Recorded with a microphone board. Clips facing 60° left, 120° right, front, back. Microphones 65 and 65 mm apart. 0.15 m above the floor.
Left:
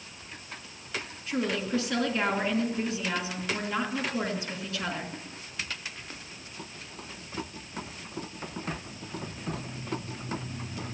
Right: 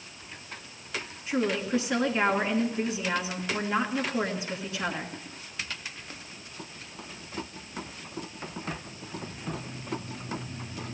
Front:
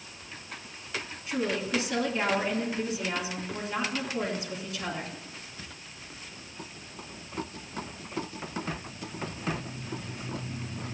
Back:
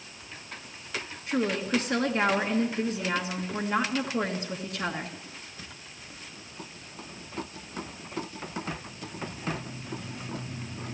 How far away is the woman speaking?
About 2 m.